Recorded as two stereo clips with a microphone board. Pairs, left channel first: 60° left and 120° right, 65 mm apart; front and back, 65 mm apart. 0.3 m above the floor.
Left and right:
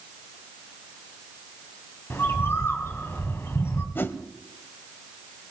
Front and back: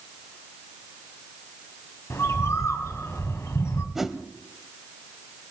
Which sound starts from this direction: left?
A whoosh, at 4.0 s.